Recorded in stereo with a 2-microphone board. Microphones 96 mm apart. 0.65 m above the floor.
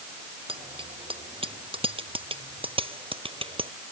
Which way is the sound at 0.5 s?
75° right (ahead or behind).